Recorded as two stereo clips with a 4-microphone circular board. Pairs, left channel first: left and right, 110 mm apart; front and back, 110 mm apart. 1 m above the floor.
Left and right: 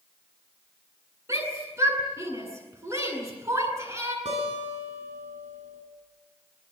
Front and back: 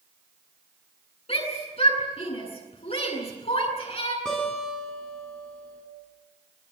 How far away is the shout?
About 9 m.